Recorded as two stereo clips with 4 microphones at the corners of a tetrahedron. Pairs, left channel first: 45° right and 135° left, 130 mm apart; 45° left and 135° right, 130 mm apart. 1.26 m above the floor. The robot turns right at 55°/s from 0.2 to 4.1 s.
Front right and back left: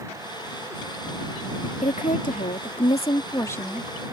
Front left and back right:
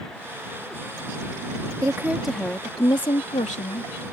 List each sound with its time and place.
1.8 s a woman speaking: 70° right; by 3.9 s 45° left